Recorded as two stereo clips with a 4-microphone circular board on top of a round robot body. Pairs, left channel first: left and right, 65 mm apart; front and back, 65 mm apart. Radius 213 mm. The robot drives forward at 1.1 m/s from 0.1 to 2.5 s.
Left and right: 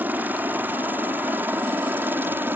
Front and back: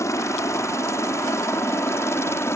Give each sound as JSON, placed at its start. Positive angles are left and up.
{"t": 0.0, "sound": "a helicopter", "azimuth_deg": -35}